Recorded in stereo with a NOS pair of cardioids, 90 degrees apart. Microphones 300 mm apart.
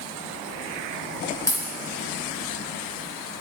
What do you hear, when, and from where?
1.5 s a dropped coin: 10° left, 2.0 m